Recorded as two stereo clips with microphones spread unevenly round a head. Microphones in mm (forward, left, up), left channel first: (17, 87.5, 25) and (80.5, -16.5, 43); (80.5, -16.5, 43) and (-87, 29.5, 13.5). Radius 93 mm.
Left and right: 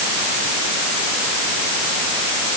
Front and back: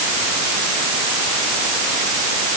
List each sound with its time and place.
Only background noise.